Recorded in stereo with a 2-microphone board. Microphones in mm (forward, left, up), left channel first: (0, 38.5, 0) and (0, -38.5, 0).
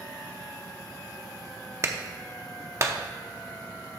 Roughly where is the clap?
Right.